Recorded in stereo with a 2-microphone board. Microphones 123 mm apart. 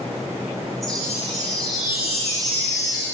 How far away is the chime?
About 6.5 m.